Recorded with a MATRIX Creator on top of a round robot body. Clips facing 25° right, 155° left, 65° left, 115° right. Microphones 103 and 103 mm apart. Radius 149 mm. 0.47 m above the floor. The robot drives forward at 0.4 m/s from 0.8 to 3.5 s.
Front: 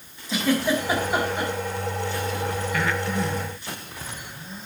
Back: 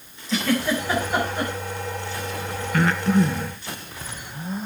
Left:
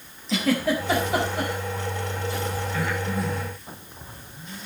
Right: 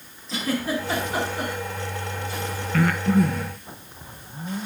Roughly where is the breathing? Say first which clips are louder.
Back 9 dB, right 11 dB; behind right.